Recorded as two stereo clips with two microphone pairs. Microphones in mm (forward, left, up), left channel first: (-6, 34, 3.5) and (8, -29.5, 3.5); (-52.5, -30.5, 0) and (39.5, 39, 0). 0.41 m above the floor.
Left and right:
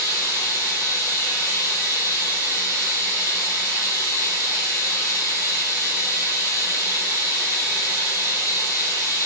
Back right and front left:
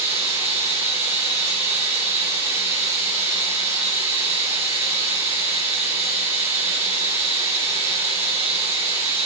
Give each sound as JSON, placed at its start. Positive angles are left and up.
{"t": 0.0, "sound": "running water", "azimuth_deg": 70, "distance_m": 4.0}